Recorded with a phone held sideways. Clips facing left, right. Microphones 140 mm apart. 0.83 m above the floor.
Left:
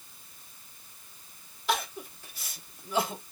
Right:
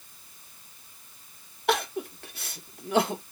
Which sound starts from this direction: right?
Crying, at 1.7 s.